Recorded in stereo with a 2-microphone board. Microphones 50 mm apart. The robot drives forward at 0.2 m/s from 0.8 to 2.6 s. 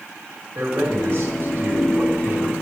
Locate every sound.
0.6 s a man speaking: 70° right (ahead or behind), 2.5 m; by 2.5 s 75° right (ahead or behind), 2.5 m